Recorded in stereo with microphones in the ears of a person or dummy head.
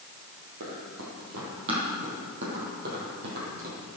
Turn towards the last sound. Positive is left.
turn(degrees=-50)  # may be behind; listen again after turning